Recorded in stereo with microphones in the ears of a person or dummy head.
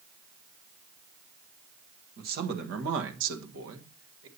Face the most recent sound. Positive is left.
turn(degrees=-65)  # may be behind; listen again after turning